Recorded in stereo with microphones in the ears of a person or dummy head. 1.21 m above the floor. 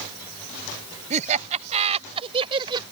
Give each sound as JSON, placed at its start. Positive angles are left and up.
{"t": 1.1, "sound": "laughter", "side_deg": -40}